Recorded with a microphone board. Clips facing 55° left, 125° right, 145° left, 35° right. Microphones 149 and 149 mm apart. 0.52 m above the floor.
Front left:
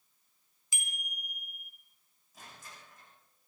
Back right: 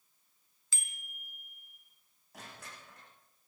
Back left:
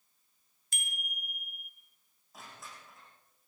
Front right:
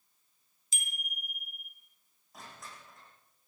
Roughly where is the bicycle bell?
Behind left.